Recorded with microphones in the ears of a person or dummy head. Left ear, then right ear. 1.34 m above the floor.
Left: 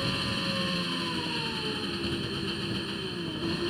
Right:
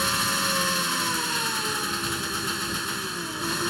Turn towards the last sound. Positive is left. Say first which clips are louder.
# right 6 dB
turn(degrees=-55)  # may be behind; listen again after turning